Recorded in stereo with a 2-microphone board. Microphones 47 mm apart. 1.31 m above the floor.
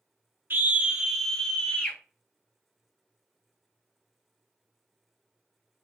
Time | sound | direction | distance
0.5 | a scream | 50° right (ahead or behind) | 0.9 m